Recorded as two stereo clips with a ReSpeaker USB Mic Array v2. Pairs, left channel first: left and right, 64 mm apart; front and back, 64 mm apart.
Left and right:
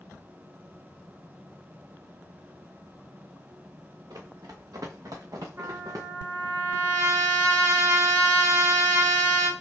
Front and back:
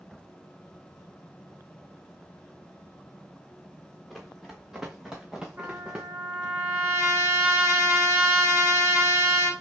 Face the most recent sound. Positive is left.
turn(degrees=-125)